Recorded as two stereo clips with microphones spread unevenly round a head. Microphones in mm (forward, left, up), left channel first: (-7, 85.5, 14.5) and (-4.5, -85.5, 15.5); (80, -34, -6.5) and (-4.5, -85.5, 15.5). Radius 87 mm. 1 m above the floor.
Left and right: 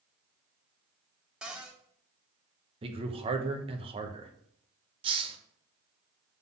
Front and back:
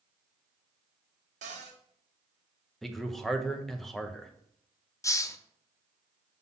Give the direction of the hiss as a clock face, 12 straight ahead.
1 o'clock.